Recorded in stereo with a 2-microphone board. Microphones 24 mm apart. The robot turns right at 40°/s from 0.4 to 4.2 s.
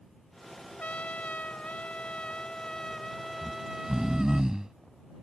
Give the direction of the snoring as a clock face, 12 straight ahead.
3 o'clock.